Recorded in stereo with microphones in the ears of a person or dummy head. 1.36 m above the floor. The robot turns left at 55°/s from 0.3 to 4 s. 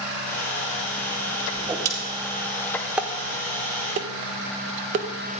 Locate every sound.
1.6 s a whoosh: 10° right (ahead or behind), 3 m; by 1.9 s 25° right (ahead or behind), 3 m
3.0 s dishes clattering: 5° right (ahead or behind), 0.6 m; by 5.4 s 45° right (ahead or behind), 0.6 m